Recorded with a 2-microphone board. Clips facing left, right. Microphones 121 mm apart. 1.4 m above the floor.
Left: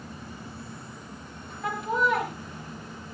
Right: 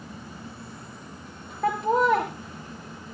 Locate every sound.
1.6 s laughter: 65° right (ahead or behind), 2.5 m